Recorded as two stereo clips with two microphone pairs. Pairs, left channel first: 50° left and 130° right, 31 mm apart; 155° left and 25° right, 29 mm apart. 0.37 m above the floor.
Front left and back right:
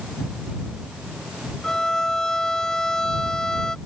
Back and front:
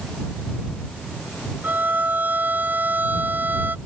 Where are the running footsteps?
No running footsteps in this recording.